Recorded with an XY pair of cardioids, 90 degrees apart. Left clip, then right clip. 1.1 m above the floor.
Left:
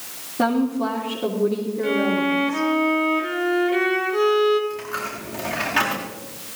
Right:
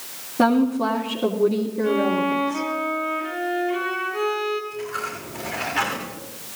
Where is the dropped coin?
60° left, 8.5 m.